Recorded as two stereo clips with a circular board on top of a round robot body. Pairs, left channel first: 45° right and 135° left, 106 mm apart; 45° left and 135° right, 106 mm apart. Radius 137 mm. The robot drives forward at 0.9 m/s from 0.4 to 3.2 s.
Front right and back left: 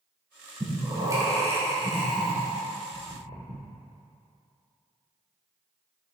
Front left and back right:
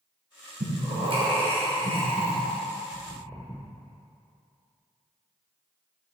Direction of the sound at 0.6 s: 160° right.